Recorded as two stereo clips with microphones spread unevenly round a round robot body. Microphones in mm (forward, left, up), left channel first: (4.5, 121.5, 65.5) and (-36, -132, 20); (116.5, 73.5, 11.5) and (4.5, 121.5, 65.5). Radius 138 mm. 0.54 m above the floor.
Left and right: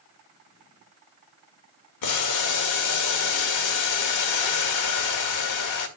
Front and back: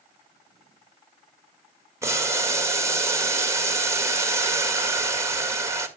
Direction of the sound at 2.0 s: 80° left.